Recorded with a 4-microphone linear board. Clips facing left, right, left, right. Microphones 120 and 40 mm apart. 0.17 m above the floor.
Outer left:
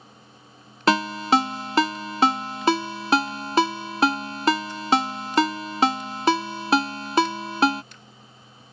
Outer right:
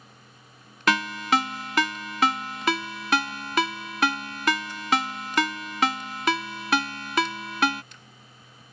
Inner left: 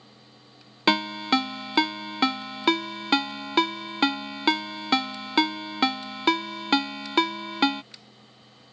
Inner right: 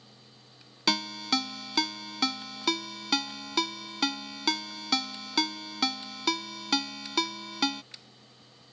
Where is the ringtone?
30° left (ahead or behind).